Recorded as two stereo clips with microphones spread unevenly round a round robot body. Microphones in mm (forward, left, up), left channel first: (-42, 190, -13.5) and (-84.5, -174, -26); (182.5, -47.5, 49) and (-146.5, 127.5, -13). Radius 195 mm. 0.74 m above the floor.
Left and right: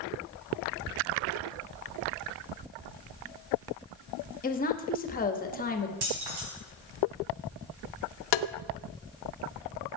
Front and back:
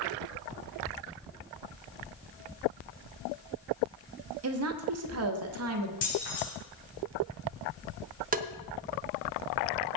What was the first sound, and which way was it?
A woman speaking, 145° left.